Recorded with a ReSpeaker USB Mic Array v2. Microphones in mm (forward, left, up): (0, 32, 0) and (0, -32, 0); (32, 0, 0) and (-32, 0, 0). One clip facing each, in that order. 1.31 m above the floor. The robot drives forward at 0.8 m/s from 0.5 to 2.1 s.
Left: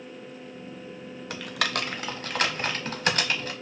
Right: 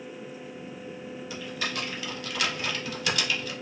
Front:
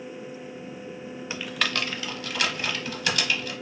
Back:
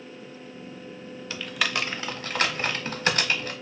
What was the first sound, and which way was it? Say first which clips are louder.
Typing on a keyboard: left 5 dB, even; 70° left.